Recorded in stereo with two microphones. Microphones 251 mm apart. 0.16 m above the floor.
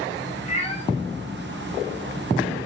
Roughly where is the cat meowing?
Left.